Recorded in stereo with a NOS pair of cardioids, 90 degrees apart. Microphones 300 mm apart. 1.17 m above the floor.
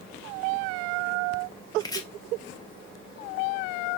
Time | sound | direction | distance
1.8 | chopping | 15° left | 1.5 m